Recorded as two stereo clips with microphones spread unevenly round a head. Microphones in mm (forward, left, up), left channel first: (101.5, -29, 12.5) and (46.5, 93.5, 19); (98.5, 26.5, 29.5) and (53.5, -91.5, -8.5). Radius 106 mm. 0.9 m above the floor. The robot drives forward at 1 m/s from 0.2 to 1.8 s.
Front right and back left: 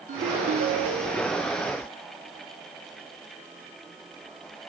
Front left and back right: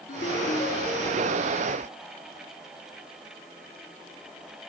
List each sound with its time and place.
0.1 s a ringtone: 90° left, 0.8 m; by 1.6 s 150° left, 1.6 m